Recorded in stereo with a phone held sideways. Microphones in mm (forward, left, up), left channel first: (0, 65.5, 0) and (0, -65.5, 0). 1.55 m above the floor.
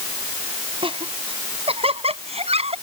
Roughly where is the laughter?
Right.